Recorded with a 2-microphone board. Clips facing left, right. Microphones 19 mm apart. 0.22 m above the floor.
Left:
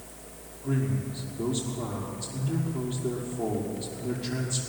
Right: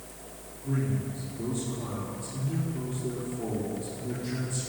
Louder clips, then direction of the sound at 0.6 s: Left 1 dB; 60° left (ahead or behind).